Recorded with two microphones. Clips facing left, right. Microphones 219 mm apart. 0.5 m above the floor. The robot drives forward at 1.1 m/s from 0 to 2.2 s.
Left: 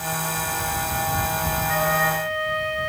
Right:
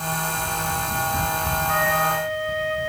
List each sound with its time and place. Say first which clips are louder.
1.7 s a flute: even; 55° right (ahead or behind), 4 m; by 2.9 s 45° right (ahead or behind), 4 m